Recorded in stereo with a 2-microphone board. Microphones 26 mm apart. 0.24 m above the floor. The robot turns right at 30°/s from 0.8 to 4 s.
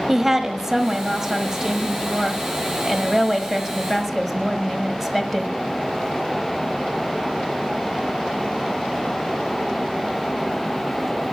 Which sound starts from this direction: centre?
A woman speaking, at 0.1 s.